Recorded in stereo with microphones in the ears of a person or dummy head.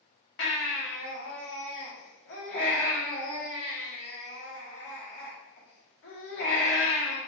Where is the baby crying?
55° left (ahead or behind), 1.1 m.